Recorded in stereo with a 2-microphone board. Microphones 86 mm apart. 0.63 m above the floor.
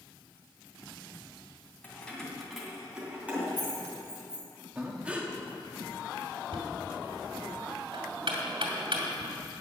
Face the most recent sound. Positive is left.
turn(degrees=-85)